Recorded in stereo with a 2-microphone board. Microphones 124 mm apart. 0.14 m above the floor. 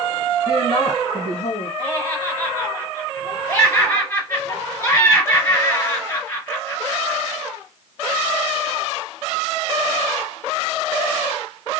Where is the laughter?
25° left (ahead or behind), 2 m.